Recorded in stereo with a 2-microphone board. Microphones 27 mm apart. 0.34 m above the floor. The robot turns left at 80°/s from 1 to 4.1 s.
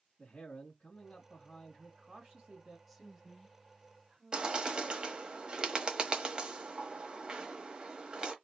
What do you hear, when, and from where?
0.2 s a man speaking: 55° left, 1.9 m; by 2.8 s 85° right, 1.9 m
2.9 s a woman speaking: 5° right (ahead or behind), 0.9 m; by 4.6 s 30° right (ahead or behind), 0.9 m
4.3 s a bird: 30° right (ahead or behind), 1.1 m